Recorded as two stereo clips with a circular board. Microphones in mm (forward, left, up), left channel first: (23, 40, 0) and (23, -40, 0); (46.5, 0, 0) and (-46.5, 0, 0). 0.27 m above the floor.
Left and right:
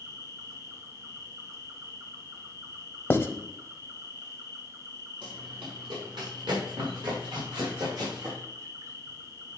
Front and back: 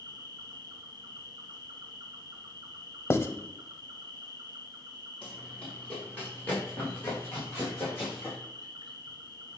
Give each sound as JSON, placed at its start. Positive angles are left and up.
{"t": 0.0, "sound": "an insect", "azimuth_deg": -135, "distance_m": 1.2}
{"t": 3.1, "sound": "writing", "azimuth_deg": 45, "distance_m": 0.7}
{"t": 5.2, "sound": "running footsteps", "azimuth_deg": -80, "distance_m": 3.0}